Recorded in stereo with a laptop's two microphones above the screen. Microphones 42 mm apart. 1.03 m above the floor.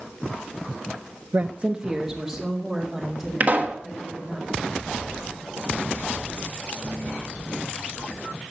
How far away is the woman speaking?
About 0.5 m.